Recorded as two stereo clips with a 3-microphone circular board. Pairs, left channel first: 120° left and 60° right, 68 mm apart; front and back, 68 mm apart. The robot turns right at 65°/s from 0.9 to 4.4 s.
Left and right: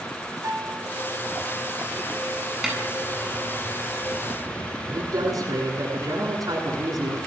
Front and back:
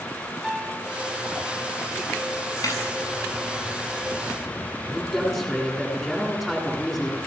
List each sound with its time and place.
0.4 s a piano: 95° right, 2.5 m
2.6 s a snare drum: 25° left, 9 m; by 2.8 s 35° left, 9 m
4.9 s a man speaking: 90° right, 9.5 m